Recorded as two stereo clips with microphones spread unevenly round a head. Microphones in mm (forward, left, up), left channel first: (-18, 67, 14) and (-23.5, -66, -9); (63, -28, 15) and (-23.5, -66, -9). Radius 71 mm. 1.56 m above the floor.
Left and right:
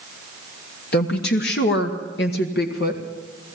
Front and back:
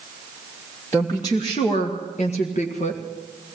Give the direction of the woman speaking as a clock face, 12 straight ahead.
9 o'clock.